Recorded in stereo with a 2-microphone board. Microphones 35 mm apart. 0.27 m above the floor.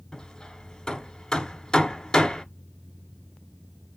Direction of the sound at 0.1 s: 20° left (ahead or behind).